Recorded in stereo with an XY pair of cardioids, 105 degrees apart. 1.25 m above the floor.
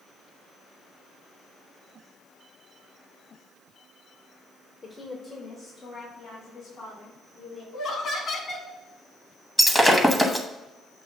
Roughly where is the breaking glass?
Ahead.